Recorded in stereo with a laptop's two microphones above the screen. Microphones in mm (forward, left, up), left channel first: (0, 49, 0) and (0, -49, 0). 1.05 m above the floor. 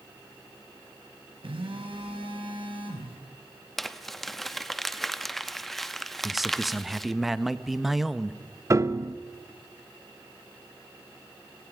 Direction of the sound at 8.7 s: 30° right (ahead or behind).